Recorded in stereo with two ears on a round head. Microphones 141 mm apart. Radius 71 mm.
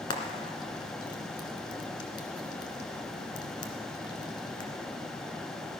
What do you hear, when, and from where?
0.1 s frying: 30° left (ahead or behind), 1.6 m